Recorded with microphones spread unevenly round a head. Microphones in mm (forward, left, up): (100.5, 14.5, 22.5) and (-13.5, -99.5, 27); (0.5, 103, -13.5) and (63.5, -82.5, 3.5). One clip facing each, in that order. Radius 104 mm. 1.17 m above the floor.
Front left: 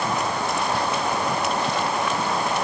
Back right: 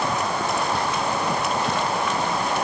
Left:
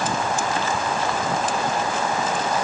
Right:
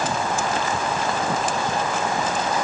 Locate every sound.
Only background noise.